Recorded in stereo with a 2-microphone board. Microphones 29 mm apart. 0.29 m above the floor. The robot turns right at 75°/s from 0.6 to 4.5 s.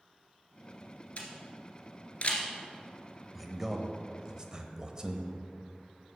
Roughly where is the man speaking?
Centre.